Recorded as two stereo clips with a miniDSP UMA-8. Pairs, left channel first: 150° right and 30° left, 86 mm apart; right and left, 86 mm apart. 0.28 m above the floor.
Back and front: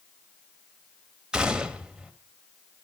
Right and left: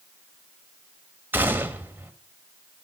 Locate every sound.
1.3 s a gunshot: 95° left, 1.4 m